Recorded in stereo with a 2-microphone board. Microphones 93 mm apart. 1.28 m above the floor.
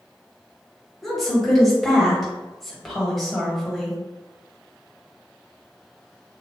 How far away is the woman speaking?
About 1.8 m.